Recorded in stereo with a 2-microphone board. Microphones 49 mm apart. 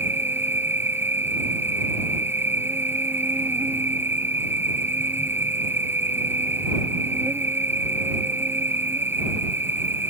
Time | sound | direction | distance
0.0 | an insect | 50° right (ahead or behind) | ?